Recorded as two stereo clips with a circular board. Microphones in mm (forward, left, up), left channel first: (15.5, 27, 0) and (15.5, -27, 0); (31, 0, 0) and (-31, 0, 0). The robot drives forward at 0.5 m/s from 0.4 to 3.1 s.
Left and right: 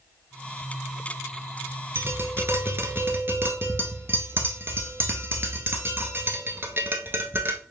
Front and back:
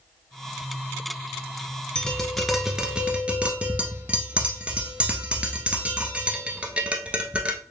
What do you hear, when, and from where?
1.9 s tapping: 70° right, 0.9 m; by 7.6 s 115° right, 0.9 m